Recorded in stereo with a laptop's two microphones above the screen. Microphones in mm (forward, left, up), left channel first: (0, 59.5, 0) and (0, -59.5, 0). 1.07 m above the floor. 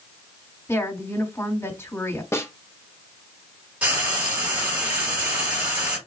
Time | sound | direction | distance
0.7 | a woman speaking | 20° left (ahead or behind) | 2.5 m
2.3 | a snare drum | 20° left (ahead or behind) | 1.0 m
3.8 | frying | 10° right (ahead or behind) | 2.5 m